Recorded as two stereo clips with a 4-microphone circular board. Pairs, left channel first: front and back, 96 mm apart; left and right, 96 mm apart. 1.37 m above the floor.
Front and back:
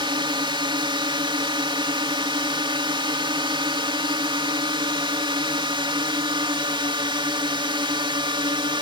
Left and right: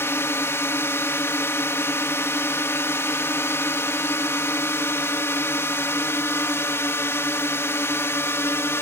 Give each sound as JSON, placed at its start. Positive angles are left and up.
{"t": 0.0, "sound": "a drone", "azimuth_deg": 150}